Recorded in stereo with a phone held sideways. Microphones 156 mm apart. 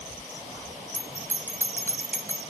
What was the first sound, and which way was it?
A bell, 15° left (ahead or behind).